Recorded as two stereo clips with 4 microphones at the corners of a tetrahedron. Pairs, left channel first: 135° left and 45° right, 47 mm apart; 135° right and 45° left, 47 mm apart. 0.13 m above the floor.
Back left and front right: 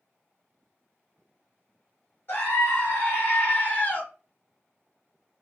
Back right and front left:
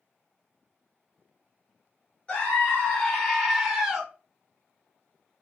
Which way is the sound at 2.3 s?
170° left.